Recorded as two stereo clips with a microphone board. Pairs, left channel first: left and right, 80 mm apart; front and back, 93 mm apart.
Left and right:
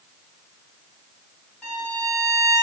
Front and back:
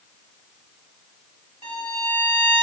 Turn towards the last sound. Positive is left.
turn(degrees=10)